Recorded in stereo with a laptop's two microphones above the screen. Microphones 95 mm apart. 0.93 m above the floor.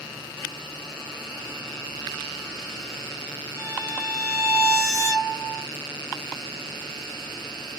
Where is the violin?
30° left (ahead or behind), 0.9 m.